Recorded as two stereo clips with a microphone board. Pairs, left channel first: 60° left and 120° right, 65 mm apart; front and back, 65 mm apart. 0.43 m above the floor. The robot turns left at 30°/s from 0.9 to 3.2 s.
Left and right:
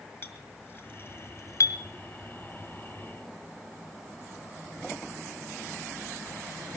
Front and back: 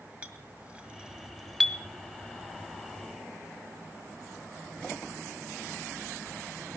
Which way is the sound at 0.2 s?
115° left.